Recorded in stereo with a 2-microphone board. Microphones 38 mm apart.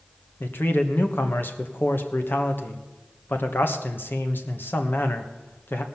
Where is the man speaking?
65° left (ahead or behind), 1.2 m.